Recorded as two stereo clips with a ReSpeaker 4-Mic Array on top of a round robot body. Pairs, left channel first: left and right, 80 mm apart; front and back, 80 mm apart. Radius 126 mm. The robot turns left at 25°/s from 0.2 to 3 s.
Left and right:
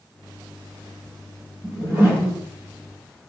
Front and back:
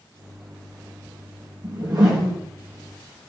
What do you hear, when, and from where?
1.6 s a whoosh: 135° right, 4 m; by 2.4 s 155° right, 4 m